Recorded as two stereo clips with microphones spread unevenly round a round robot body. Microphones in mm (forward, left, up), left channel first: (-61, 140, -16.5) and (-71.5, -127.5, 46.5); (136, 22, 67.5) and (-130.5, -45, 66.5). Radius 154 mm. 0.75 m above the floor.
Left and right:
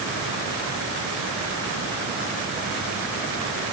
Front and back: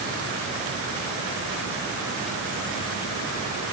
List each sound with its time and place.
Only background noise.